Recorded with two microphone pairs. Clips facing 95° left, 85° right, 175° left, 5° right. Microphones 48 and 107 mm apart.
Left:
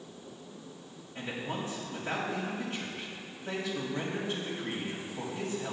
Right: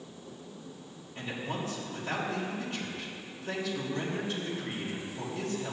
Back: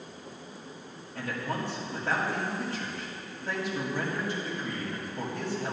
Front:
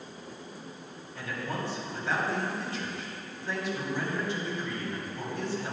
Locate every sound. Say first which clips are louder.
1.1 s a man speaking: even, back 2 dB; 135° left, 2.5 m